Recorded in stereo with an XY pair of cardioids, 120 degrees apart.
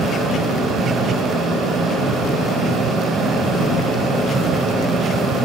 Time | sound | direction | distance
0.0 | a fan | 60° right | 7 m